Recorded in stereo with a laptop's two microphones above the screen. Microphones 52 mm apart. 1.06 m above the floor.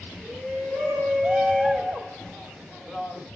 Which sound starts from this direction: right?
A shout, at 0.2 s.